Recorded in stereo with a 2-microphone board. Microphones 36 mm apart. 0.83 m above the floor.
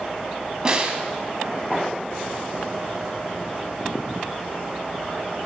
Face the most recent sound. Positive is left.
turn(degrees=-15)  # may be behind; listen again after turning